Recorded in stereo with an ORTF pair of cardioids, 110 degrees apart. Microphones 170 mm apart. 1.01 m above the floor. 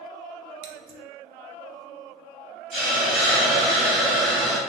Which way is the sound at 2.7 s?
Straight ahead.